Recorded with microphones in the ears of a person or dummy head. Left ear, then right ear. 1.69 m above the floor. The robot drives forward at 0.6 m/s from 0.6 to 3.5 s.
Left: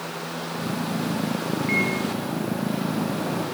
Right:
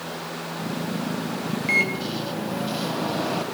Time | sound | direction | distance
1.7 | a microwave | 30° right (ahead or behind) | 1.8 m